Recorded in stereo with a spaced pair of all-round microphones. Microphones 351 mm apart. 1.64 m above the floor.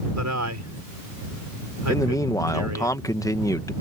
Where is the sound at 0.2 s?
50° right (ahead or behind).